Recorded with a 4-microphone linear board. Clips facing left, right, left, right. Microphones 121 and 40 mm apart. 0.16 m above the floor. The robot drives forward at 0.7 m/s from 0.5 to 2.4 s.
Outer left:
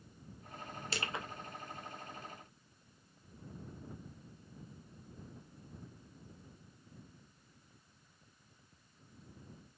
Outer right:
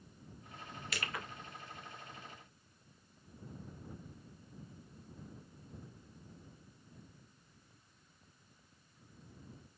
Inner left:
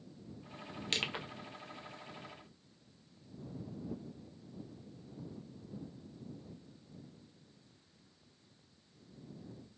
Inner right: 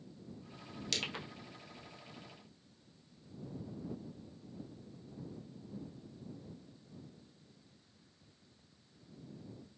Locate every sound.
0.9 s crushing: 30° left (ahead or behind), 0.5 m; by 1.2 s 20° left (ahead or behind), 0.7 m